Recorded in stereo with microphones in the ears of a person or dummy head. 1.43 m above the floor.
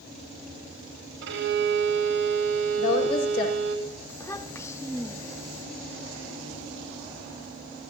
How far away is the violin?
About 5 m.